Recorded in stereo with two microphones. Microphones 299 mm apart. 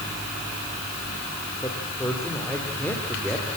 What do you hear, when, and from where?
1.6 s a man speaking: 10° left (ahead or behind), 7 m; by 3.5 s 5° left (ahead or behind), 7 m